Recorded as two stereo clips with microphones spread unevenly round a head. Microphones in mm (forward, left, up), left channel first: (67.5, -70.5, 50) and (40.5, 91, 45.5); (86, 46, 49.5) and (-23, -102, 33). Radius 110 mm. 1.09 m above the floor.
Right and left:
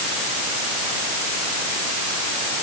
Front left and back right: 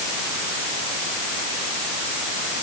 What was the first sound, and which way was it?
Only background noise.